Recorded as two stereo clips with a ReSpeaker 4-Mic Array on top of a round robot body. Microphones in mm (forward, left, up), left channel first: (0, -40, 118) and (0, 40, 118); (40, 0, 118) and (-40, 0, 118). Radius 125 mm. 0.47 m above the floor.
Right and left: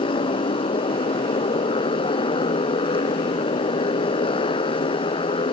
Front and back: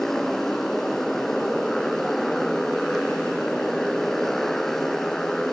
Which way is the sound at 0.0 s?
85° right.